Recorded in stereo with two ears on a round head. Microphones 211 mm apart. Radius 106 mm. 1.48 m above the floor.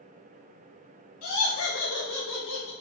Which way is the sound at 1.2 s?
75° left (ahead or behind).